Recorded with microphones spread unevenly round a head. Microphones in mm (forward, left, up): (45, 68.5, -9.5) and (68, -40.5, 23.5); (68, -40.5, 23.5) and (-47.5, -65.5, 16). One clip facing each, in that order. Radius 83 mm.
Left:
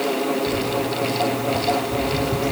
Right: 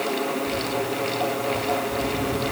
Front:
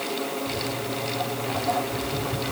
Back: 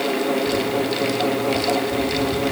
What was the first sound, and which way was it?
Footsteps, 135° left.